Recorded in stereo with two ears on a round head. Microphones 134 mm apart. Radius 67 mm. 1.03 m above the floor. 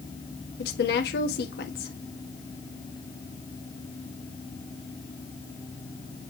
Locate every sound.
0.6 s a woman speaking: 75° left (ahead or behind), 1.7 m